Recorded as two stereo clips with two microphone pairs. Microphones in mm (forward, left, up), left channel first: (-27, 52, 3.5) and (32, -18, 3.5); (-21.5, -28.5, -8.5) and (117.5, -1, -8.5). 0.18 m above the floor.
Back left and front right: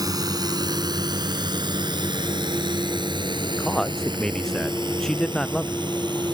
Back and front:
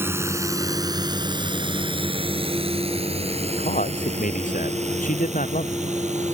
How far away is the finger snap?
No finger snap in this recording.